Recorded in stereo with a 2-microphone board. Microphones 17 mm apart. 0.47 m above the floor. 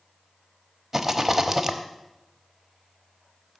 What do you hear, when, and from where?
0.9 s a rattle: 15° right (ahead or behind), 1.1 m